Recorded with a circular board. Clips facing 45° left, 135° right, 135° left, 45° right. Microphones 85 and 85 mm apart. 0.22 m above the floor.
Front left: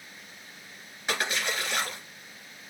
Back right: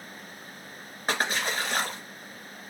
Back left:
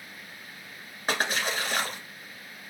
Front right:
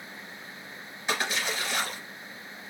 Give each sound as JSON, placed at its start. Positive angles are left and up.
{"t": 1.1, "sound": "a splash", "azimuth_deg": 175, "distance_m": 1.9}